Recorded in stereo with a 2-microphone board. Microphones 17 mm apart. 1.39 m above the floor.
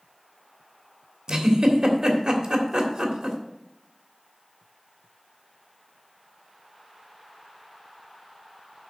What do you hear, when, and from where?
1.3 s a giggle: 45° right (ahead or behind), 1.7 m